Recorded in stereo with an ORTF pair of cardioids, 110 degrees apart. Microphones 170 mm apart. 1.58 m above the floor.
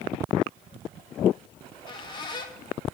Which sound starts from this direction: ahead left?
A squeak, at 1.6 s.